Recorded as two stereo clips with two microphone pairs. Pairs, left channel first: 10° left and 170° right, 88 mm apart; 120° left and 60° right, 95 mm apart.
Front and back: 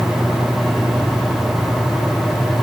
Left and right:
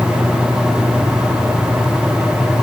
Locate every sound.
Only background noise.